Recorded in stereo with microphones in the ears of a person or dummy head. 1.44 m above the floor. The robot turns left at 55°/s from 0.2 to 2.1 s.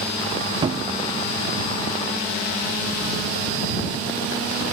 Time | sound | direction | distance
0.6 | a cupboard door | 30° right (ahead or behind) | ?